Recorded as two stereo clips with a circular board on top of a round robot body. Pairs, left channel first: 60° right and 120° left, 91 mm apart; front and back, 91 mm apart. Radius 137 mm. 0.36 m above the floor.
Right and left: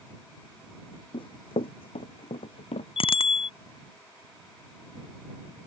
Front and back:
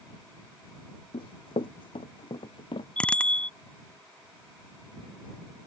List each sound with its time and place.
1.1 s running footsteps: 25° right; by 2.9 s 35° right
3.0 s a bicycle bell: 80° right